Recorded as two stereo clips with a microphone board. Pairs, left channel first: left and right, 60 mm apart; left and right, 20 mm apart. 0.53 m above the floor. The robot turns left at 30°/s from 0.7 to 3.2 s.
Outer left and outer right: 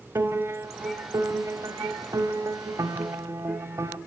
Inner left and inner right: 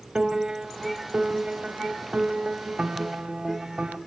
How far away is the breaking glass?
No breaking glass in this recording.